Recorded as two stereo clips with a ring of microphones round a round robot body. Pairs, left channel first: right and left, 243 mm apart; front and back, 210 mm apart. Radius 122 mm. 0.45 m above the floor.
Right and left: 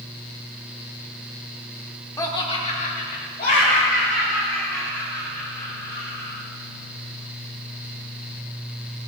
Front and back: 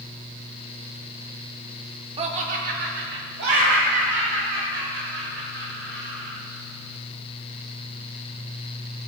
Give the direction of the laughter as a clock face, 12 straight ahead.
5 o'clock.